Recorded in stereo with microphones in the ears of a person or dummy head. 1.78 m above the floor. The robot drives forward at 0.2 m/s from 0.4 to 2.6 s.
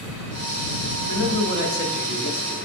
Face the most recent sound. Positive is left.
turn(degrees=50)  # may be behind; listen again after turning